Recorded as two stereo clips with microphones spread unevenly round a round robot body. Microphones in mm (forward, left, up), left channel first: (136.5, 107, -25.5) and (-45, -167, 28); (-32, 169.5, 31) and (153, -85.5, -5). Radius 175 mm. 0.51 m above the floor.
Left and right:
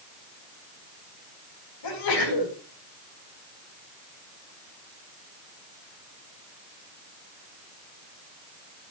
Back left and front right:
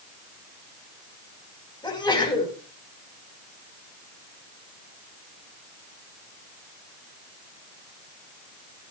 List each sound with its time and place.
1.8 s a sneeze: 50° left, 5.5 m